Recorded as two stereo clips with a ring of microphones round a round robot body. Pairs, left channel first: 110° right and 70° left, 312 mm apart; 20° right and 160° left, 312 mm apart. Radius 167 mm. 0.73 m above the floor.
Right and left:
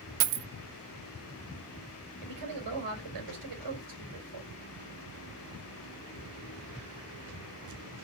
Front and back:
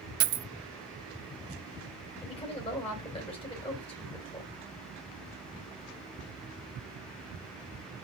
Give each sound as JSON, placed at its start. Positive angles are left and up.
{"t": 0.2, "sound": "a dropped coin", "azimuth_deg": 100, "distance_m": 0.7}
{"t": 2.2, "sound": "a woman speaking", "azimuth_deg": 50, "distance_m": 3.5}